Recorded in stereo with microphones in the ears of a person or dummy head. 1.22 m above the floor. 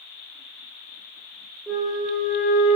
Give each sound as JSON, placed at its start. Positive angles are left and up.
{"t": 1.7, "sound": "a flute", "side_deg": -5, "distance_m": 1.7}